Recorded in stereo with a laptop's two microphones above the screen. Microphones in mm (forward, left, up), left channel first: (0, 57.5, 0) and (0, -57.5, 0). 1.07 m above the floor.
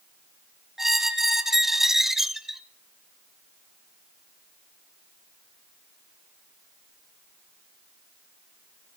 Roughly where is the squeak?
Centre.